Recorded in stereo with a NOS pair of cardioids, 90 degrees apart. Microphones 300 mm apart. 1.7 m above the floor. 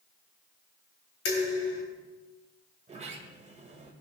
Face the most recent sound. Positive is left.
turn(degrees=-20)